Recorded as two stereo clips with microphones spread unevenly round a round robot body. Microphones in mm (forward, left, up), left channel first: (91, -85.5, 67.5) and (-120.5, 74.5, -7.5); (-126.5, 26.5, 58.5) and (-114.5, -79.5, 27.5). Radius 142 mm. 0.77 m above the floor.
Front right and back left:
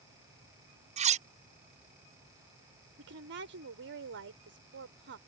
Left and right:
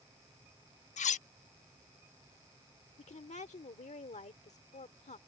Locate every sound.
1.0 s cutlery clinking: 80° left
3.0 s a woman speaking: 100° left